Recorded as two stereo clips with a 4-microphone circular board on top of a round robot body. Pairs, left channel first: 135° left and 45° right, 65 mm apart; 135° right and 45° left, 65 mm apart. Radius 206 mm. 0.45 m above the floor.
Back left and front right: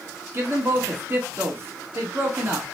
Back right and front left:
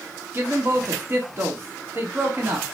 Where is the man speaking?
5° right, 1.1 m.